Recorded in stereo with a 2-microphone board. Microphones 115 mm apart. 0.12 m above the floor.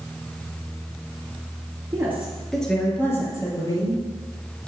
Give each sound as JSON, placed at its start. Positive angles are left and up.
{"t": 1.9, "sound": "a woman speaking", "side_deg": -20, "distance_m": 2.0}